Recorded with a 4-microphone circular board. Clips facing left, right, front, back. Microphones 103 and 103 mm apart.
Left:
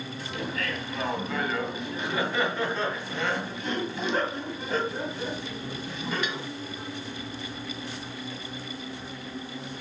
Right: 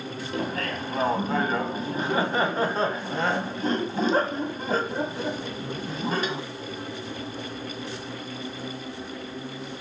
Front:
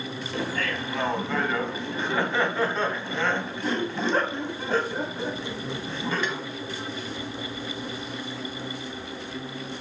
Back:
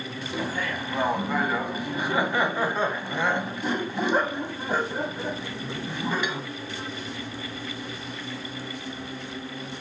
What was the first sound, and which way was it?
Laughter, 110° right.